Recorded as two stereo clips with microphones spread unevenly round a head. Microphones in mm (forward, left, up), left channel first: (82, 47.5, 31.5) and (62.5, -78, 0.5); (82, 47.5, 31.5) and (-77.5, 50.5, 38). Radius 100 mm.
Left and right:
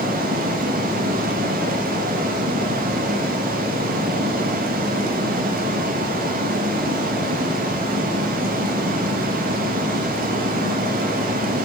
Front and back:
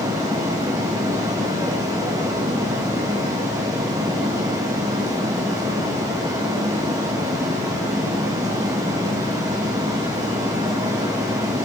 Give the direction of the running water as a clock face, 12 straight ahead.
4 o'clock.